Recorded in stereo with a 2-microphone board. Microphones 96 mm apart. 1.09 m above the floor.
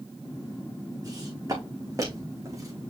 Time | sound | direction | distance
1.0 | footsteps | 40° right (ahead or behind) | 4 m